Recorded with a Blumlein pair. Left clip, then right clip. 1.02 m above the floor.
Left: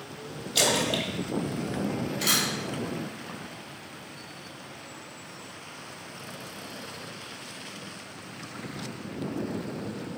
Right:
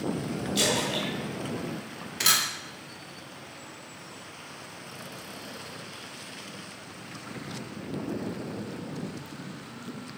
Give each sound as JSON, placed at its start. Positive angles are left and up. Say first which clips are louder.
{"t": 0.6, "sound": "a splash", "louder": "left 2 dB", "azimuth_deg": 20, "distance_m": 2.5}
{"t": 2.2, "sound": "a camera shutter", "louder": "right 2 dB", "azimuth_deg": -45, "distance_m": 2.0}